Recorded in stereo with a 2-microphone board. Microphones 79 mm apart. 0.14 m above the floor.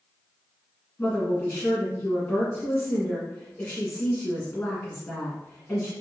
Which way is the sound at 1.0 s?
25° left (ahead or behind).